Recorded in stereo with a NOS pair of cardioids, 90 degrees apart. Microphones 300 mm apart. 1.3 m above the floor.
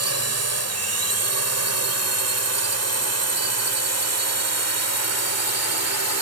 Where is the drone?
55° right; by 6.2 s 60° right.